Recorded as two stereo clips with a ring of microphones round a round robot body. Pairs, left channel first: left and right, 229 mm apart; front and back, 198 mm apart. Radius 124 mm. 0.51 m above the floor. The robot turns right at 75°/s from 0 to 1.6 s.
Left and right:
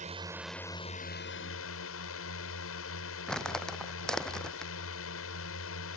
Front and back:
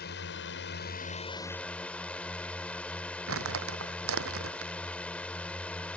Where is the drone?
35° right; by 6.0 s 85° left.